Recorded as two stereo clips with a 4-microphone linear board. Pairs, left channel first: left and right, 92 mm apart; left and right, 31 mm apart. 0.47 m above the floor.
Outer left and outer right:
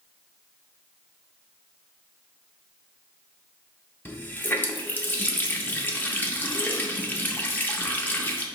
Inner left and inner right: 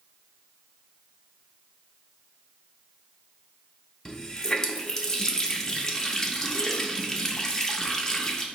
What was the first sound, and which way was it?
A running tap, 20° left (ahead or behind).